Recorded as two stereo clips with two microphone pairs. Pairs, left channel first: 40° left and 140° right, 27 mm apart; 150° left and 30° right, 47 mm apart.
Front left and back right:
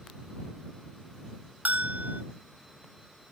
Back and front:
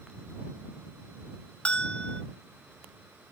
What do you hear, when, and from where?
1.6 s a bell: 145° right